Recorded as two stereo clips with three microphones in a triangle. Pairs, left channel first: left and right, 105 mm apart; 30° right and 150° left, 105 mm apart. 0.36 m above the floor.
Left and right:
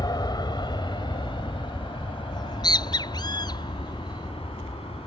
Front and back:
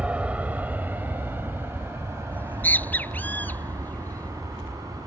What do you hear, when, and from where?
0.0 s an aircraft: 75° left; by 5.1 s 95° left
2.3 s a bird: 45° left